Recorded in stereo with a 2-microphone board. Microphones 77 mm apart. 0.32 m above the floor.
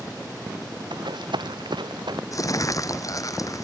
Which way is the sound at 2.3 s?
45° left (ahead or behind).